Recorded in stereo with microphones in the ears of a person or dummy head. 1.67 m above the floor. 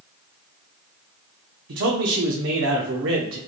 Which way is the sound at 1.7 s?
65° right (ahead or behind).